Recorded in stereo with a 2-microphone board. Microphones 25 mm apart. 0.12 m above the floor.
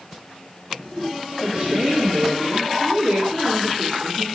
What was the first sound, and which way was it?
A woman speaking, 60° right (ahead or behind).